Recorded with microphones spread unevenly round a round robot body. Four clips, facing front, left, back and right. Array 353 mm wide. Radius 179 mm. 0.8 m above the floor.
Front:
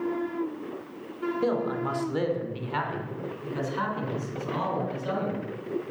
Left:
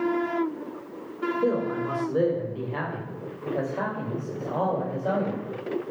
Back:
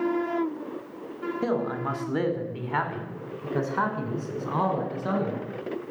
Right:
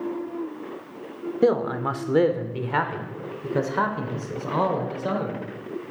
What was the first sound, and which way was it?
A man speaking, 100° right.